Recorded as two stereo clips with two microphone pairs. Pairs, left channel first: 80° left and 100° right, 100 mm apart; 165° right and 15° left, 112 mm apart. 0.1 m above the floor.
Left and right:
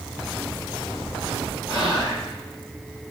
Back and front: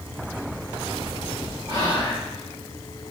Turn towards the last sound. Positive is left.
turn(degrees=40)